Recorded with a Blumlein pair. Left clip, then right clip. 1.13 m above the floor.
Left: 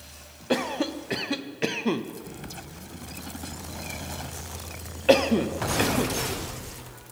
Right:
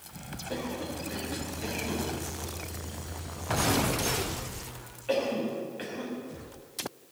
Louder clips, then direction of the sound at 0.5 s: Left 9 dB; 55° left.